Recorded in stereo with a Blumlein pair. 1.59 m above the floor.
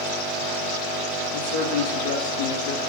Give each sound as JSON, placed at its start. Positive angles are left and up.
{"t": 1.3, "sound": "a man speaking", "azimuth_deg": 40, "distance_m": 2.5}